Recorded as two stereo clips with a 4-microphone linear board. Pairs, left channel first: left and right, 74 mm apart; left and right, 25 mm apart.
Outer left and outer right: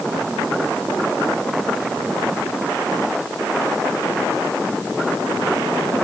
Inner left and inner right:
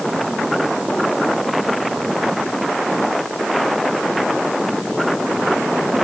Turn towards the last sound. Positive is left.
No sound to turn to.